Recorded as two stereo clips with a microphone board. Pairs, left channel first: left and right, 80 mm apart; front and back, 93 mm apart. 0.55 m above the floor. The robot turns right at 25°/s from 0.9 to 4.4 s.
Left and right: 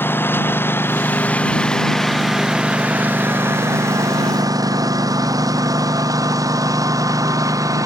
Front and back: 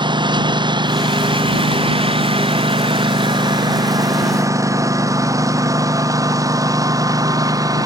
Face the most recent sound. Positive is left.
turn(degrees=-130)